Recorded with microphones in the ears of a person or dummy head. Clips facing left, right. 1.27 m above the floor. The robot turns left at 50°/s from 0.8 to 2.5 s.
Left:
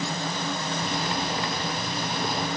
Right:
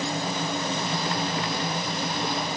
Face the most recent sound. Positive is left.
No sound to turn to.